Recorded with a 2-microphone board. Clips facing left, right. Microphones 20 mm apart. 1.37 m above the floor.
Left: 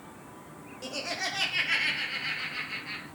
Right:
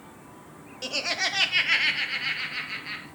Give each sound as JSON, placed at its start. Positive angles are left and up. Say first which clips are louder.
{"t": 0.8, "sound": "laughter", "louder": "right 6 dB", "side_deg": -50, "distance_m": 0.6}